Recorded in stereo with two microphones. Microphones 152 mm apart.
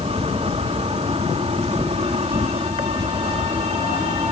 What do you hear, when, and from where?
0.0 s an insect: 45° right (ahead or behind)